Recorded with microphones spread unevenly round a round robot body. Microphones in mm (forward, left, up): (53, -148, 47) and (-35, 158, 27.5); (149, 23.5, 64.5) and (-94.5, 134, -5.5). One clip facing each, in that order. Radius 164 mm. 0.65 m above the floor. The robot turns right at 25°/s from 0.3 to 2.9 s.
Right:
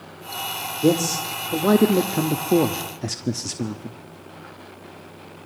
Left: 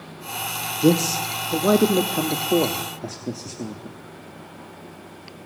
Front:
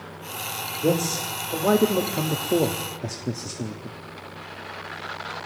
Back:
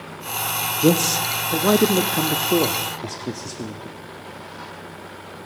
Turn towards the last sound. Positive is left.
turn(degrees=-130)